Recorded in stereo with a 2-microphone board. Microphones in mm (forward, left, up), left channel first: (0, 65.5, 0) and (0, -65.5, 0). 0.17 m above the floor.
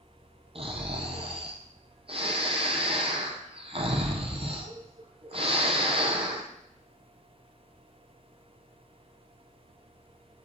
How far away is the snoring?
About 1.6 m.